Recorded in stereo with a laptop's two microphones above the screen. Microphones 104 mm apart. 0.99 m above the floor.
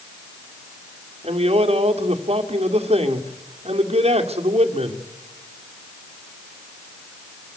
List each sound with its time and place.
1.2 s a man speaking: 85° right, 2 m